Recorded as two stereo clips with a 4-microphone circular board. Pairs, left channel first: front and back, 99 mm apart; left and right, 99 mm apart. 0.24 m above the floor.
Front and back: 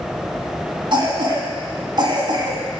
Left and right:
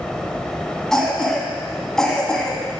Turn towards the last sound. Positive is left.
turn(degrees=175)